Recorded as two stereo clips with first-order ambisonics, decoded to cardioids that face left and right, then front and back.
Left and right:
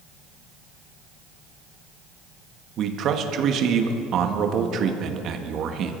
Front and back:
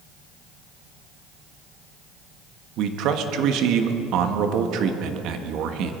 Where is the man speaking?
140° right, 1.4 m.